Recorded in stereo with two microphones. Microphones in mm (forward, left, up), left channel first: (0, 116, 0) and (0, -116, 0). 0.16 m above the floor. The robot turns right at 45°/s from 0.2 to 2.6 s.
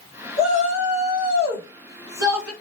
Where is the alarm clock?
No alarm clock in this recording.